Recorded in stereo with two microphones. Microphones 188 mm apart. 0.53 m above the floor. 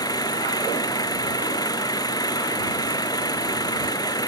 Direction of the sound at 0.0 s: 20° left (ahead or behind).